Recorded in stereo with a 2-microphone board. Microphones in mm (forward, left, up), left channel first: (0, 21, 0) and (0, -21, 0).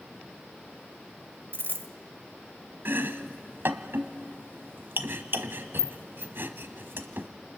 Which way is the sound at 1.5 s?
60° right (ahead or behind).